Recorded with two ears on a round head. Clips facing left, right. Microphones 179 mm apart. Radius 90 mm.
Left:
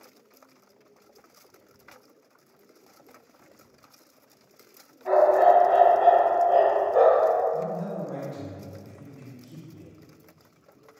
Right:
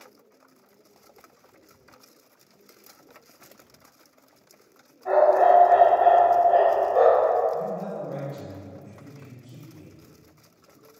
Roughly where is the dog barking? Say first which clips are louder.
Right 1 dB; left.